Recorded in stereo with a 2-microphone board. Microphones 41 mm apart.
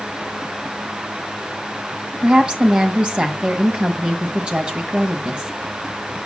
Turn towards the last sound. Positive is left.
turn(degrees=-25)  # may be behind; listen again after turning